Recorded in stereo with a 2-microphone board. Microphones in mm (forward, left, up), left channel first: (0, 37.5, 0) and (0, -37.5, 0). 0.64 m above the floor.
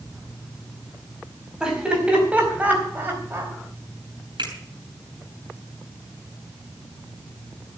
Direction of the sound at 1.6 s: 10° right (ahead or behind).